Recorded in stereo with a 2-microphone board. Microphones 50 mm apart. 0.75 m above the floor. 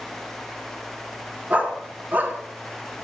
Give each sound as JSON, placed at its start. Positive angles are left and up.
{"t": 1.5, "sound": "a dog barking", "side_deg": -30, "distance_m": 4.0}